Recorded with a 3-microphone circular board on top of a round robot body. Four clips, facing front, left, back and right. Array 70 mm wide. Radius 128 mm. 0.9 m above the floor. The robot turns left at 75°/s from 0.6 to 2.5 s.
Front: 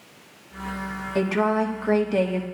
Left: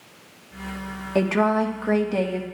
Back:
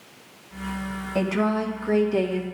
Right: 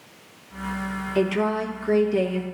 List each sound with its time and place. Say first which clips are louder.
1.1 s a woman speaking: left 3 dB, front 2 dB; 105° left, 2.0 m; by 2.4 s 5° left, 2.0 m